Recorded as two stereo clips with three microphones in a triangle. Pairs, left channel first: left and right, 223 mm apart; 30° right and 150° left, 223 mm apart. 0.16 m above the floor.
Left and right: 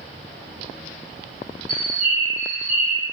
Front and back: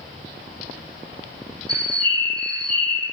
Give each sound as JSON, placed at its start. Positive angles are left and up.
{"t": 1.7, "sound": "a bird", "azimuth_deg": -140, "distance_m": 1.5}